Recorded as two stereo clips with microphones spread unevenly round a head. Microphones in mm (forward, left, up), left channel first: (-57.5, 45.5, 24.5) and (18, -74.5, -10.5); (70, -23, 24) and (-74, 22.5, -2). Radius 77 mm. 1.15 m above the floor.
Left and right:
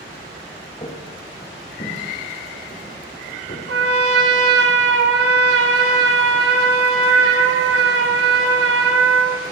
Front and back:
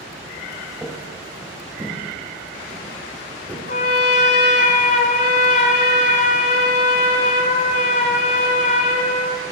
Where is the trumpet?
50° right, 2.5 m.